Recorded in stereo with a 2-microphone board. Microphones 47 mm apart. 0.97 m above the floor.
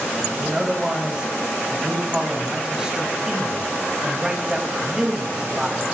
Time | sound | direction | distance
0.1 | a man speaking | 15° right (ahead or behind) | 7 m